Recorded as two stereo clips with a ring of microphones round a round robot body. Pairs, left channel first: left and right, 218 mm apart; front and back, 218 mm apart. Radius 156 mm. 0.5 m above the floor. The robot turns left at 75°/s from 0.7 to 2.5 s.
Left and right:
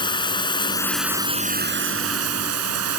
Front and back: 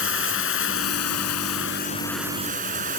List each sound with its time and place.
0.0 s running water: 20° left; by 3.0 s 115° right